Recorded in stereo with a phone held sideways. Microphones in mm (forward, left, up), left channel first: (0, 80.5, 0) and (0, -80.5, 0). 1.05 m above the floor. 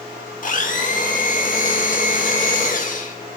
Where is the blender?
60° left (ahead or behind), 1.5 m.